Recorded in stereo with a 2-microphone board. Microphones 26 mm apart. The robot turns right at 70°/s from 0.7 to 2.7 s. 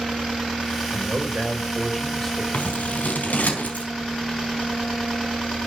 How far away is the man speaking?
About 5.5 m.